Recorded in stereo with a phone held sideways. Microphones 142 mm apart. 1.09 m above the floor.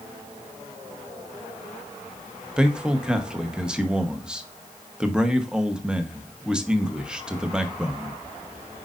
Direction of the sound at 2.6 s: 5° right (ahead or behind).